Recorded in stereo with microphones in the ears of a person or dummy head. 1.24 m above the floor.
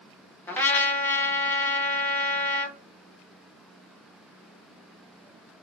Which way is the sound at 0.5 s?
15° left (ahead or behind).